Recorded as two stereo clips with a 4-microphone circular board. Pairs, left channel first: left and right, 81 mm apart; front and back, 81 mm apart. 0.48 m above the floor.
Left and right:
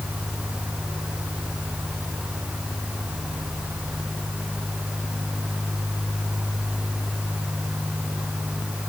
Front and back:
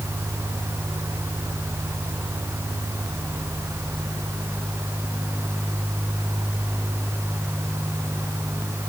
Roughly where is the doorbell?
I don't hear a doorbell.